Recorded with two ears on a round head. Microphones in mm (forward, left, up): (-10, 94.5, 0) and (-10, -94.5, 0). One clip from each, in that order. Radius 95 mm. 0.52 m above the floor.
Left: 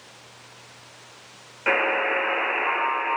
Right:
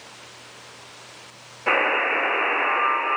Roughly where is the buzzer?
Left.